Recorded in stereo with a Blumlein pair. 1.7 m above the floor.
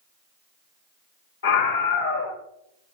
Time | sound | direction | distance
1.4 | a scream | 60° left | 1.7 m